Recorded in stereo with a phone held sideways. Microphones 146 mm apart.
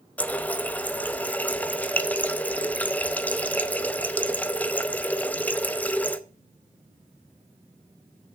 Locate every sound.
0.2 s a running tap: 10° left (ahead or behind), 0.6 m